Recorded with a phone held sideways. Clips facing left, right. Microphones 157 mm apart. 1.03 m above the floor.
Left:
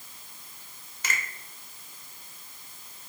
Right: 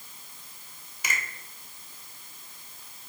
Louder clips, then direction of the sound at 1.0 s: Even; 10° right (ahead or behind).